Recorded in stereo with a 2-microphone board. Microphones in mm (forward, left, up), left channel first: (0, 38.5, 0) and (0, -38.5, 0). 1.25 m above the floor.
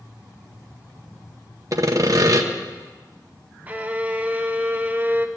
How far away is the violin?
About 0.8 m.